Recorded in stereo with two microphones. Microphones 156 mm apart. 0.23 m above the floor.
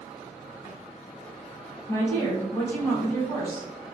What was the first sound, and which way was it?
A woman speaking, 15° left (ahead or behind).